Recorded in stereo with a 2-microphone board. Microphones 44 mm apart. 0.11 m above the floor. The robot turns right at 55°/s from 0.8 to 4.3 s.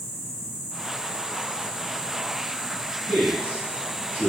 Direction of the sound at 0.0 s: 170° left.